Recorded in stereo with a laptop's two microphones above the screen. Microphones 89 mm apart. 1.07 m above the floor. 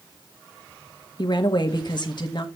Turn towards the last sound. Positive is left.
turn(degrees=55)  # may be behind; listen again after turning